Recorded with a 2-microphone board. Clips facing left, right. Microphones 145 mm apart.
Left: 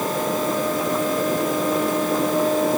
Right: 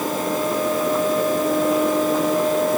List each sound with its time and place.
Only background noise.